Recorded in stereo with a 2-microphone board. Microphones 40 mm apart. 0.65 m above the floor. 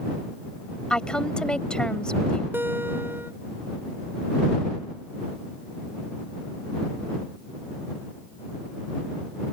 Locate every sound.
0.9 s a woman speaking: 25° left (ahead or behind)
2.5 s a guitar: 65° right (ahead or behind)